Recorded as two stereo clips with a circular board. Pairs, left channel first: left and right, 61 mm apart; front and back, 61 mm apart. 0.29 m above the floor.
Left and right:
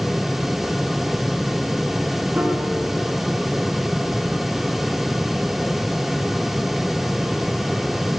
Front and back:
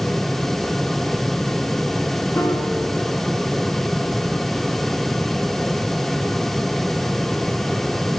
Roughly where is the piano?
Ahead right.